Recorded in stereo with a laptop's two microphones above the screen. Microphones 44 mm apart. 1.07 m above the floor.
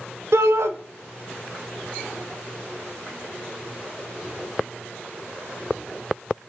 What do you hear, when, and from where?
0.3 s a shout: 75° right (ahead or behind), 0.6 m